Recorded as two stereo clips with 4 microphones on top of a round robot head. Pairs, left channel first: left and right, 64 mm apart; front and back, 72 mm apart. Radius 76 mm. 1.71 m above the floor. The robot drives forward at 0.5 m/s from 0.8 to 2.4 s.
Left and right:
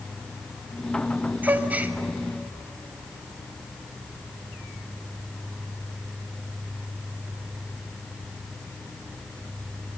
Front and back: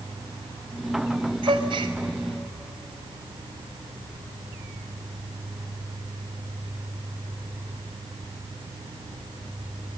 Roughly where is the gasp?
Behind right.